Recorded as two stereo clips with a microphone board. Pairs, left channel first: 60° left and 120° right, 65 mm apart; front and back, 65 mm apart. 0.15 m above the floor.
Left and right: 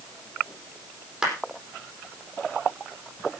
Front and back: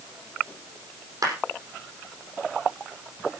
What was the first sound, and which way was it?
A clap, 160° left.